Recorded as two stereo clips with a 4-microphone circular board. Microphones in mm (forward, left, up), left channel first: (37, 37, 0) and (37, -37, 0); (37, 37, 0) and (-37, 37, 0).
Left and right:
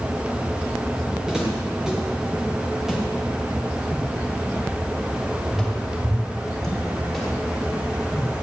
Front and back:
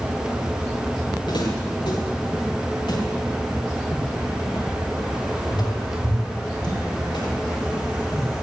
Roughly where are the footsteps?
Ahead.